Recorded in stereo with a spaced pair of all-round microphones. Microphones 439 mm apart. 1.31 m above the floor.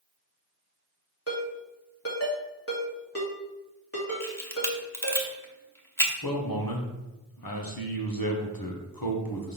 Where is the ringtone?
35° left (ahead or behind), 1.9 m.